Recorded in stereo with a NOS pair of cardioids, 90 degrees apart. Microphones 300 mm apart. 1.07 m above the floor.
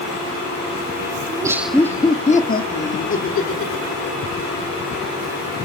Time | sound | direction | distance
1.3 | laughter | 15° right | 1.5 m